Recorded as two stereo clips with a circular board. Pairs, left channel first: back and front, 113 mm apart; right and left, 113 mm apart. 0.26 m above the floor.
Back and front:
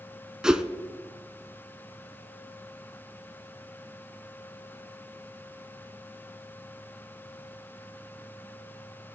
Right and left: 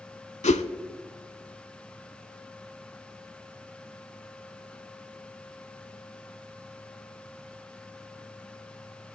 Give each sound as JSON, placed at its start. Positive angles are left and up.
{"t": 0.4, "sound": "a whoosh", "azimuth_deg": -85, "distance_m": 0.6}